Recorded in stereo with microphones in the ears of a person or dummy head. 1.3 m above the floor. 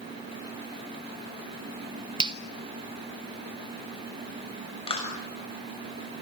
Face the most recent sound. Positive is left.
turn(degrees=30)  # may be behind; listen again after turning